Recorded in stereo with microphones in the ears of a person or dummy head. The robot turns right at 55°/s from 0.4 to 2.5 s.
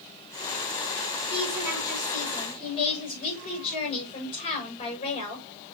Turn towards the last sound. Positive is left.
turn(degrees=35)